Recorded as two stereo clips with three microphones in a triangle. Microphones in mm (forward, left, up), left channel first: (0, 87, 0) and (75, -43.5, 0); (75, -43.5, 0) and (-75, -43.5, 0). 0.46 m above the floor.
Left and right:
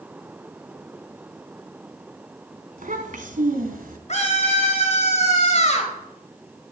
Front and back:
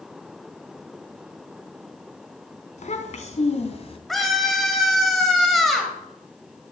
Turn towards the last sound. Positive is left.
turn(degrees=90)